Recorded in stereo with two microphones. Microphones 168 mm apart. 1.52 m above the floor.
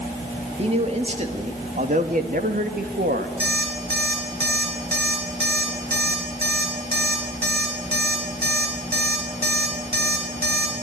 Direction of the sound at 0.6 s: 35° right (ahead or behind).